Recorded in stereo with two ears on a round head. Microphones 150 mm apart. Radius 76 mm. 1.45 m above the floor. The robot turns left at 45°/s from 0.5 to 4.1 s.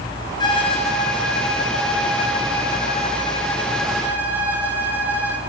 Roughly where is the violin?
Behind left.